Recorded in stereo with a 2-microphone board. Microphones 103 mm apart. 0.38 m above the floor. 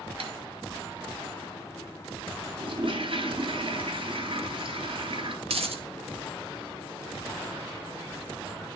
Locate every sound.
0.2 s tapping: 65° right (ahead or behind), 1.1 m
2.6 s a toilet flushing: 60° right (ahead or behind), 1.1 m
5.5 s a dropped coin: 70° right (ahead or behind), 0.7 m